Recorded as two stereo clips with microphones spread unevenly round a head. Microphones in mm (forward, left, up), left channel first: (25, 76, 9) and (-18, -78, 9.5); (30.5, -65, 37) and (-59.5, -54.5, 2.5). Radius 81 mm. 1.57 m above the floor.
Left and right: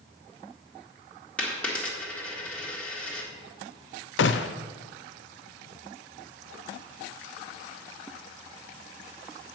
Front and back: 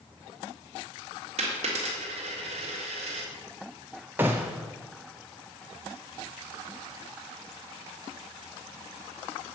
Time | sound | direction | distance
1.4 | a dropped coin | 155° left | 1.6 m
4.2 | a gunshot | 95° left | 0.5 m